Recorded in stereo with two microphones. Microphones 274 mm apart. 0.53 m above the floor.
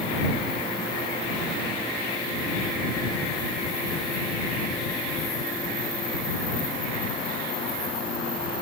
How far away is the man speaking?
No man speaking in this recording.